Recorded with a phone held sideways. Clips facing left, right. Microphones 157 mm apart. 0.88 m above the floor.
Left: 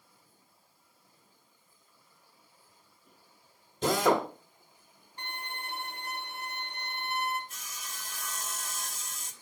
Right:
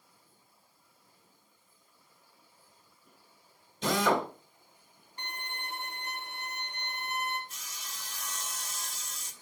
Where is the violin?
30° left (ahead or behind), 1.7 m.